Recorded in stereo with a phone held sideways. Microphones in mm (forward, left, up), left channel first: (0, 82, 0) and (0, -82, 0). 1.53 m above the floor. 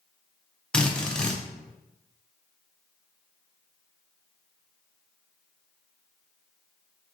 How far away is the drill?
About 0.5 m.